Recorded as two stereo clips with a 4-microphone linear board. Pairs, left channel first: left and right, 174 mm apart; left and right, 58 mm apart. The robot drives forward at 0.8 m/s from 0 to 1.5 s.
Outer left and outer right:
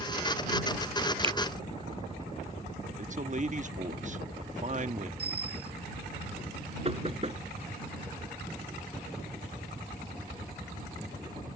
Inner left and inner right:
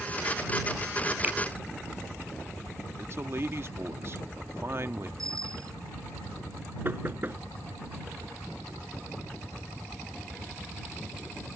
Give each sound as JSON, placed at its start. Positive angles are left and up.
{"t": 1.2, "sound": "a finger snap", "side_deg": -30}
{"t": 3.0, "sound": "a man speaking", "side_deg": -45}
{"t": 5.2, "sound": "a bicycle bell", "side_deg": -75}
{"t": 6.8, "sound": "knocking", "side_deg": -35}